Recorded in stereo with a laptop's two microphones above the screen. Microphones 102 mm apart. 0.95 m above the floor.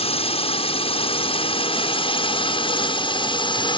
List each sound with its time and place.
0.0 s a drone: 65° left (ahead or behind); by 3.8 s 50° left (ahead or behind)